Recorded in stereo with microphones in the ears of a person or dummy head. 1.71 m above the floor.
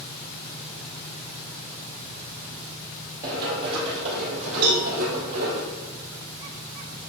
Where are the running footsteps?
20° right (ahead or behind), 2.5 m; by 5.6 s 50° right (ahead or behind), 4 m.